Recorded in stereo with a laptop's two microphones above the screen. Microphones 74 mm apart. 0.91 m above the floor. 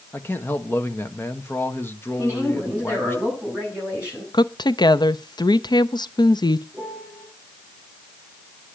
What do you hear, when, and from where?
0.1 s a man speaking: 25° left (ahead or behind), 1.2 m
2.2 s a woman speaking: 20° right (ahead or behind), 8.5 m
4.3 s a woman speaking: 65° left (ahead or behind), 0.6 m
6.7 s a piano: centre (ahead or behind), 4.5 m